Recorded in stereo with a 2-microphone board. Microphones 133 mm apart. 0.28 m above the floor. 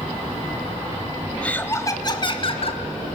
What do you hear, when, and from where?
1.4 s laughter: 10° left (ahead or behind), 1.4 m; by 2.8 s 50° left (ahead or behind), 1.9 m